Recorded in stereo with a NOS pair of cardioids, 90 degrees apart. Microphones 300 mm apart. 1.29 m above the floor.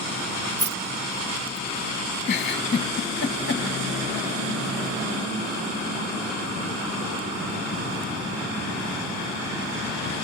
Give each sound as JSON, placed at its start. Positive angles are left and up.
{"t": 0.6, "sound": "keys jangling", "azimuth_deg": -30, "distance_m": 0.6}
{"t": 2.2, "sound": "a giggle", "azimuth_deg": 35, "distance_m": 1.2}